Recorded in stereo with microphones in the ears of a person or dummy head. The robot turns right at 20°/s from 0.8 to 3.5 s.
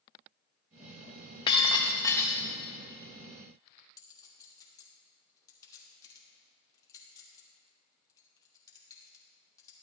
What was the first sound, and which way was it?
Breaking glass, 25° left (ahead or behind).